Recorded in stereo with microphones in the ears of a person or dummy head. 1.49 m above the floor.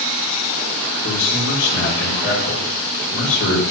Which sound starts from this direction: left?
A man speaking, at 1.0 s.